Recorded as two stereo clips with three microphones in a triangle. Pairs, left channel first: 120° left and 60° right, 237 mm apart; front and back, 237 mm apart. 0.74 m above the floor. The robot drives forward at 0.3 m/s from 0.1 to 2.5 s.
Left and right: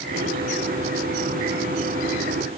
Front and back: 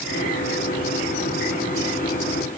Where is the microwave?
No microwave in this recording.